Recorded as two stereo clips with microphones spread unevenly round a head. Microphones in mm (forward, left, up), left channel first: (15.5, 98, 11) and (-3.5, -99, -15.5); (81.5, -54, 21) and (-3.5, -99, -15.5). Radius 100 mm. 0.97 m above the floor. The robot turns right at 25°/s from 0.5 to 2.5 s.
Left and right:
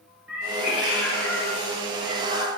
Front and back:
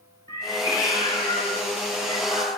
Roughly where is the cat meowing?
Ahead.